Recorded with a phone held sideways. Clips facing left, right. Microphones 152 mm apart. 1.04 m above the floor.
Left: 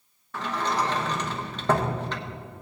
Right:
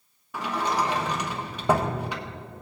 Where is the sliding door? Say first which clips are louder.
Right 1 dB; 10° right (ahead or behind), 0.9 m.